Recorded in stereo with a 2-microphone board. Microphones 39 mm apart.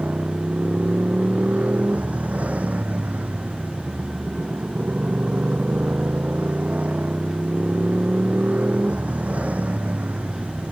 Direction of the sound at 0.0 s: 35° right (ahead or behind).